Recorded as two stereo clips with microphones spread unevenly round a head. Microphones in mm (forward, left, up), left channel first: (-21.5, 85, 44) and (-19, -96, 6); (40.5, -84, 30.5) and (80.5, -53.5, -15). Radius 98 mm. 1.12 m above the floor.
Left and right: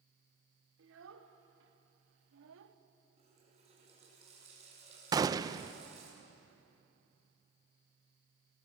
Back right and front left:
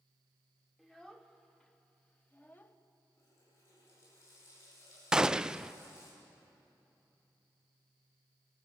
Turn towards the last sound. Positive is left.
turn(degrees=-20)